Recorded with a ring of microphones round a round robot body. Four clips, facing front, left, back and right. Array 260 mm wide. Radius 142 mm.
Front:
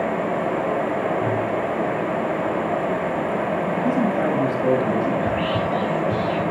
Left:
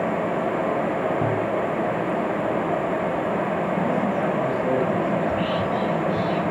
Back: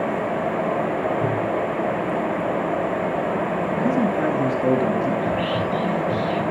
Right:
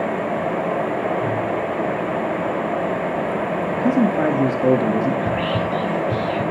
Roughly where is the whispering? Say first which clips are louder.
Right 1 dB, even; right.